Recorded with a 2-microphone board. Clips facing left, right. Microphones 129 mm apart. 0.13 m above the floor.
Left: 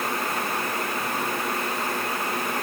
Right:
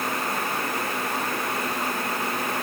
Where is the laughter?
I don't hear laughter.